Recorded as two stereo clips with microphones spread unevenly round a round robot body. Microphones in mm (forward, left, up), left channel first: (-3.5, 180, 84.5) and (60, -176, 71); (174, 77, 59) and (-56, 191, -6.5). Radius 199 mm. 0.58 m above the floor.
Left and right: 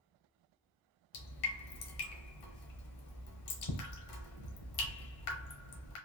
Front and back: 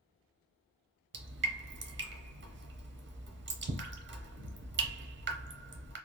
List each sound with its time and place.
1.1 s dripping: 100° left, 0.9 m